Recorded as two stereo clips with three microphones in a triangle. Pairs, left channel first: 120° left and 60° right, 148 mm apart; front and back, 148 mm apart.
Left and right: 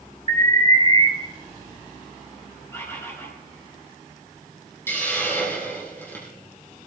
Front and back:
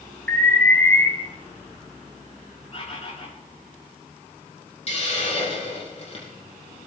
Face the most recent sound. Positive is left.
turn(degrees=45)